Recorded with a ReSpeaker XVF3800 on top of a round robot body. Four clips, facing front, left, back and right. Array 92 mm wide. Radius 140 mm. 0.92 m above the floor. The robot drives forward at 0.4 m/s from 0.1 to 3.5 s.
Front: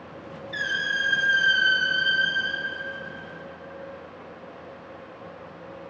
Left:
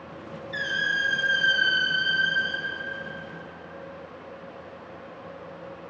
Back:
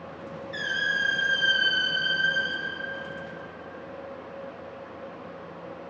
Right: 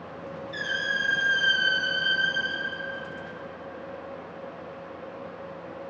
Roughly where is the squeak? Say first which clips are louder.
Left 2 dB, front 1 dB; ahead.